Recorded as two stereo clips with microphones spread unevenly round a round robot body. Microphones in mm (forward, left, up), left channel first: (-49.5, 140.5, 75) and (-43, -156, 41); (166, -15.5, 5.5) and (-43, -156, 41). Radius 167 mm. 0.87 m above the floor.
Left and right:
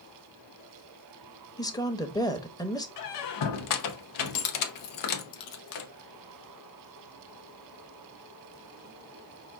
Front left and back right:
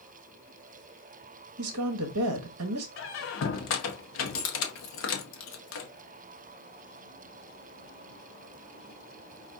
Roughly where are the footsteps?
I don't hear footsteps.